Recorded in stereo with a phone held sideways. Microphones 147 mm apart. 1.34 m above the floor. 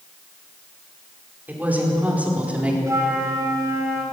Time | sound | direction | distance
1.5 | a woman speaking | 10° right (ahead or behind) | 4.5 m
2.9 | a flute | 20° right (ahead or behind) | 5.5 m